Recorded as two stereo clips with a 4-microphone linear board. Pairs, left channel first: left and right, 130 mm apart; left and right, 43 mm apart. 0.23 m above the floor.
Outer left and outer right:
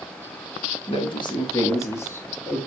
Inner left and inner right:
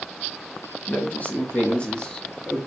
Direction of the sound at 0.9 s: 45° left (ahead or behind).